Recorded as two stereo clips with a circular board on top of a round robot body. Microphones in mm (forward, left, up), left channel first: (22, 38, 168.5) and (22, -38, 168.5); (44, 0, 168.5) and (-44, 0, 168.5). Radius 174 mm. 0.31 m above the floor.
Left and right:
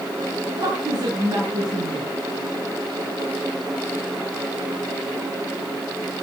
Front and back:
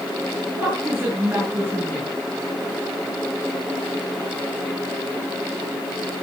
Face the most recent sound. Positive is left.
turn(degrees=-115)